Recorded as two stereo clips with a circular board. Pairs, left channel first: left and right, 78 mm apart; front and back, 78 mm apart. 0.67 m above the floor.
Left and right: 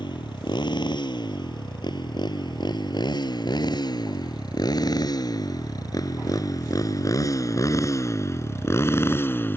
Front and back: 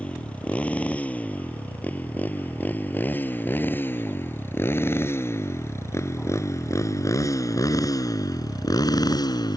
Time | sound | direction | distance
0.0 | a motorcycle | 75° left | ?